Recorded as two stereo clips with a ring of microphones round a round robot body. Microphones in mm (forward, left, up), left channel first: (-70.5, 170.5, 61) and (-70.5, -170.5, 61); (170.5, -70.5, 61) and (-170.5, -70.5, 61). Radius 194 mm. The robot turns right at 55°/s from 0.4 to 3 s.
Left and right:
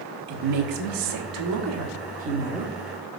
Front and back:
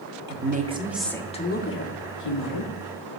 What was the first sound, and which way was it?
A woman speaking, 125° right.